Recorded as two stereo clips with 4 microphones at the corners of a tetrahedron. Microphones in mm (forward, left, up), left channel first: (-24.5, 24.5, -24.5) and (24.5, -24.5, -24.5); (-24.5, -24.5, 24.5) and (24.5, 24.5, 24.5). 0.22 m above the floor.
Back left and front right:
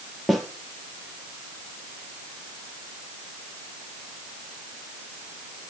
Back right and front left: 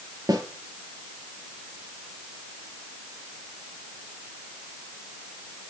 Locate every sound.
0.3 s a snare drum: 45° left, 4 m